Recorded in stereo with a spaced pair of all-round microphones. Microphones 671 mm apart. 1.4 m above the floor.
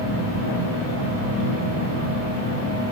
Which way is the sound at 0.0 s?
75° left (ahead or behind).